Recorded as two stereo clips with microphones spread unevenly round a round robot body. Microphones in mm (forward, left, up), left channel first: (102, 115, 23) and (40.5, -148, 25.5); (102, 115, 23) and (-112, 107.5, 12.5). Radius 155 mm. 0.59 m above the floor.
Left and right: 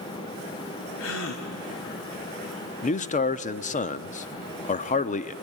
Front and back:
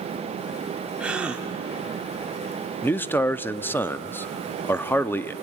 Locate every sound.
1.0 s a gasp: 100° left, 1.9 m
2.8 s a man speaking: 80° left, 0.6 m